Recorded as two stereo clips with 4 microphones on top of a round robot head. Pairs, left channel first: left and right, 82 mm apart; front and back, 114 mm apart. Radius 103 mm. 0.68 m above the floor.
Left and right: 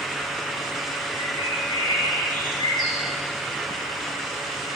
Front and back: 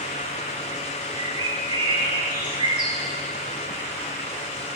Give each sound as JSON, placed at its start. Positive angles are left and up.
{"t": 1.1, "sound": "a bird", "azimuth_deg": 135, "distance_m": 9.5}